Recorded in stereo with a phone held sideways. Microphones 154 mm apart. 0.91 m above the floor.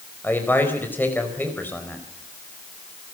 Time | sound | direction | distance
0.2 | a man speaking | 10° left (ahead or behind) | 4.5 m